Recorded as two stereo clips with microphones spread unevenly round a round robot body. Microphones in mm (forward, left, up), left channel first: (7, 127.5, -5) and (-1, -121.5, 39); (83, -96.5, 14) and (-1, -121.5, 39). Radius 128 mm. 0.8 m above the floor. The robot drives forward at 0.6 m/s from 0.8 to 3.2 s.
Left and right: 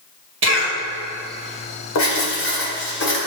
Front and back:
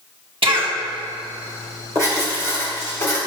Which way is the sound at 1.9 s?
120° left.